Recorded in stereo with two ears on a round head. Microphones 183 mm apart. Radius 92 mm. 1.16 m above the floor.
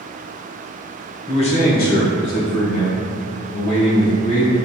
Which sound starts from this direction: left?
A man speaking, at 1.3 s.